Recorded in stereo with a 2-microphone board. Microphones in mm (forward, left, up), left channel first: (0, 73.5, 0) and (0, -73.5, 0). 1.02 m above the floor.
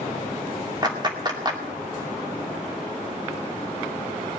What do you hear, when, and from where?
0.8 s a clap: 30° right (ahead or behind), 2.5 m